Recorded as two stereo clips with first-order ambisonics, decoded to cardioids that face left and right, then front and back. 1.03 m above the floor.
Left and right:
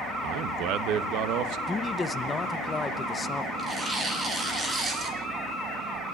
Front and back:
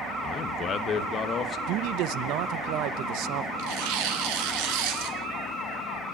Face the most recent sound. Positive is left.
turn(degrees=-165)